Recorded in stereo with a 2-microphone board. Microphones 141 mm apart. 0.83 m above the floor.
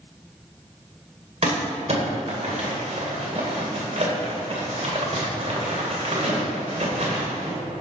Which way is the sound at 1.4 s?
50° right (ahead or behind).